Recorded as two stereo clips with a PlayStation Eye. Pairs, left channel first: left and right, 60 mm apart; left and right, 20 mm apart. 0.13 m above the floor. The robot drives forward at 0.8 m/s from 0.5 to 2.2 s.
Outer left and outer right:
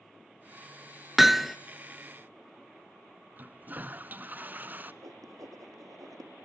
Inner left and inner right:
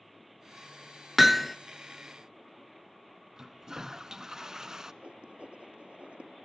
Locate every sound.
1.2 s hammering: 5° right (ahead or behind), 0.5 m; by 1.6 s centre (ahead or behind), 0.8 m
3.4 s a toilet flushing: 30° right (ahead or behind), 0.6 m
5.0 s writing: 70° right (ahead or behind), 1.8 m